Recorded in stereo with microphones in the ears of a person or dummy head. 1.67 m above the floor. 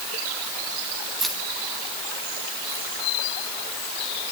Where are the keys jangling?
Centre (ahead or behind), 1.6 m; by 2.9 s 25° left (ahead or behind), 2 m.